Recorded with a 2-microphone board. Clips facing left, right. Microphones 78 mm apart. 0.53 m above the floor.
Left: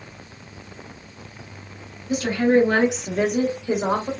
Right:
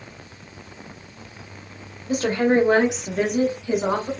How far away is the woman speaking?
About 0.9 m.